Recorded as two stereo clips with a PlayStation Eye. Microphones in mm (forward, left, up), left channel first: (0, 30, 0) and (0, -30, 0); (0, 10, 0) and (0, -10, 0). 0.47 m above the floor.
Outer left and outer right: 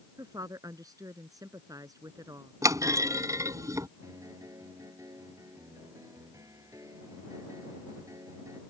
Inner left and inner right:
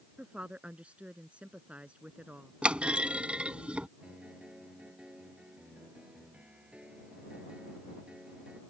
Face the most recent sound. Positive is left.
turn(degrees=-65)  # may be behind; listen again after turning